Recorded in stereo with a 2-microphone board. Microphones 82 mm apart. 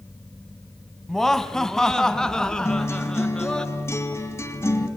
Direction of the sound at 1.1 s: 5° left (ahead or behind).